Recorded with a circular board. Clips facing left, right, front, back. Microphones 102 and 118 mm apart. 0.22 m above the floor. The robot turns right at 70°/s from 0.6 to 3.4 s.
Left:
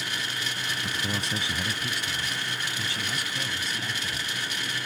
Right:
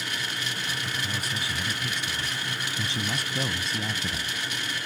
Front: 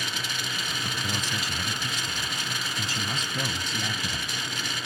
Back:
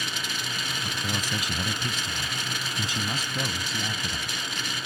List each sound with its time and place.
0.8 s a man speaking: 85° left; by 4.4 s 95° right